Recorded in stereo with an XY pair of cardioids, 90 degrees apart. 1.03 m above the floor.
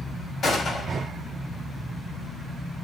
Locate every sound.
0.4 s a gunshot: 65° left, 5 m